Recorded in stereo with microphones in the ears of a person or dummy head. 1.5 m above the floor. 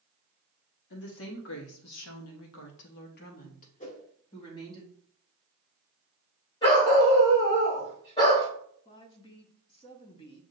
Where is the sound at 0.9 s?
65° left (ahead or behind), 1.2 m; by 4.8 s 25° left (ahead or behind), 1.6 m.